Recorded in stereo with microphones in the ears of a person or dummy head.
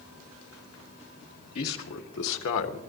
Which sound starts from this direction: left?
A man speaking, at 1.6 s.